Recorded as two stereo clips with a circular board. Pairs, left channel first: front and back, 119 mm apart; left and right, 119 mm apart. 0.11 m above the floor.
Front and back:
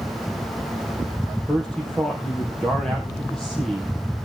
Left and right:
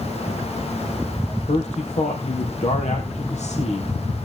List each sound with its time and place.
1.5 s a man speaking: 85° left, 3 m